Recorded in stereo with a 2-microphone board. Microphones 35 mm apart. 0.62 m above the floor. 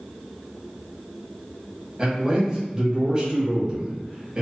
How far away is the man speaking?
About 1.1 m.